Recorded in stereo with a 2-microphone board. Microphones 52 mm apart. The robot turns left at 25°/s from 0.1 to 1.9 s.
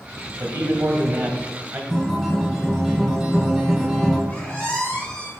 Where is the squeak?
20° left (ahead or behind), 2 m.